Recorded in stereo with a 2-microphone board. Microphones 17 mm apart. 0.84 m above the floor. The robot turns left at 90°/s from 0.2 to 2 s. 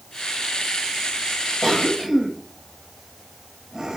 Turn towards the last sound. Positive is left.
turn(degrees=-30)  # may be behind; listen again after turning